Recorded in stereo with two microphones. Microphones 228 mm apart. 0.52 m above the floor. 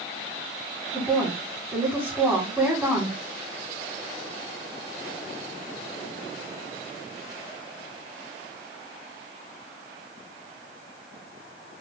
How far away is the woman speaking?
About 1.6 m.